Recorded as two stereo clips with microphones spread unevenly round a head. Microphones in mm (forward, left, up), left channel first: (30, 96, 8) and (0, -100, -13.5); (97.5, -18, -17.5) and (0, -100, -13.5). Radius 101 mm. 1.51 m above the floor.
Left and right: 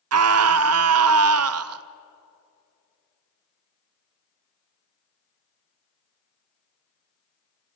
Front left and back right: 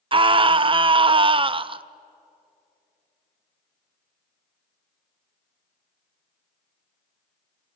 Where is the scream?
90° right, 0.7 m.